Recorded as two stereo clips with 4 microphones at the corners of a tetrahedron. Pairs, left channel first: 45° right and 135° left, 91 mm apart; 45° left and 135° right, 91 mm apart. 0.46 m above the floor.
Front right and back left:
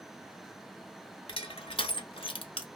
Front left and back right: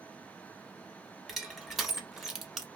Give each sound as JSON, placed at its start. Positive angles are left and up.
{"t": 1.3, "sound": "crushing", "azimuth_deg": -45, "distance_m": 0.9}